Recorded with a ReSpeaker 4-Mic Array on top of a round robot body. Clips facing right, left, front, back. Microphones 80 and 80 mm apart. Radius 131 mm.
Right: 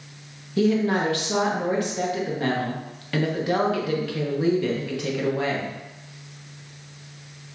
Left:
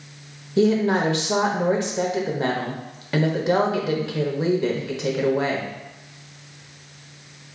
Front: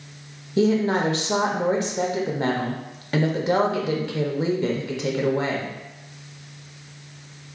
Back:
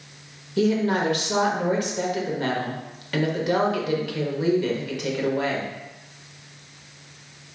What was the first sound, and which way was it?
A woman speaking, 40° left.